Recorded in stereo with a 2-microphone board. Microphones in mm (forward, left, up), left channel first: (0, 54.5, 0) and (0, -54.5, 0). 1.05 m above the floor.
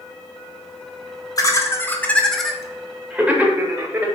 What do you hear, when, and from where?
1.4 s laughter: 35° left (ahead or behind), 1.2 m; by 4.1 s 25° right (ahead or behind), 2 m